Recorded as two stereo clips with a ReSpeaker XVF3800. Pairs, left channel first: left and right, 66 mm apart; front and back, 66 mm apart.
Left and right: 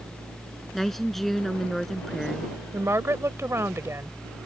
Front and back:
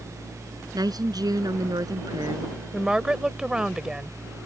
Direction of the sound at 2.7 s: 105° right.